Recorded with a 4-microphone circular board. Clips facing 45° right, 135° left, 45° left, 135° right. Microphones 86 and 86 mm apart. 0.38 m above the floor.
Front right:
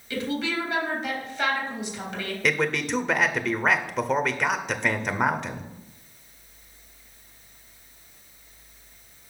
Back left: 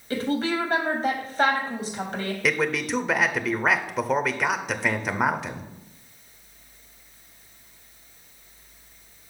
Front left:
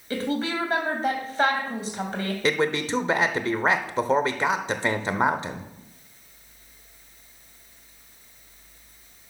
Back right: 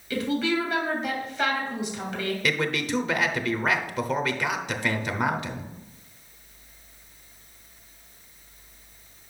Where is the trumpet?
I don't hear a trumpet.